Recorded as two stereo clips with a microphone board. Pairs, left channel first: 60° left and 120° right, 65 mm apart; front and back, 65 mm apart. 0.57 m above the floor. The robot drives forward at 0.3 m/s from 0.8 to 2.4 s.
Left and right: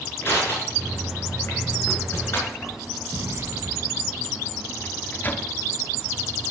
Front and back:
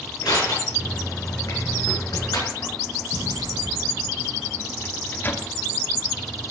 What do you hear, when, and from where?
0.2 s crushing: 5° left, 5.5 m
3.1 s an explosion: 165° right, 1.4 m
4.8 s a microwave: 30° left, 1.0 m